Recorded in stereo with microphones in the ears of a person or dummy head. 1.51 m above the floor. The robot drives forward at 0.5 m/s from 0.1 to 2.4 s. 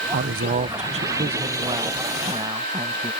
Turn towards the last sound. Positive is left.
turn(degrees=-20)  # may be behind; listen again after turning